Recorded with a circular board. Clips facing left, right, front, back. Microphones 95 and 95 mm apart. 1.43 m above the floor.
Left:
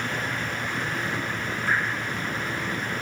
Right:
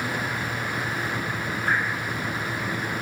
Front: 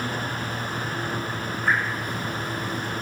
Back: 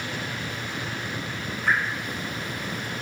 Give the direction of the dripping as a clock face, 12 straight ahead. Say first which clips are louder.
Right 1 dB, front 1 dB; 3 o'clock.